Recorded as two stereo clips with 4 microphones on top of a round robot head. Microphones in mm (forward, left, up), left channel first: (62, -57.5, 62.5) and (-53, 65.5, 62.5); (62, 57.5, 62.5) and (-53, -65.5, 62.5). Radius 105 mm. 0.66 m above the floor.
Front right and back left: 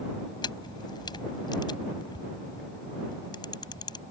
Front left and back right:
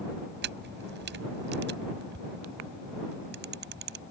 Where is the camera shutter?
115° right.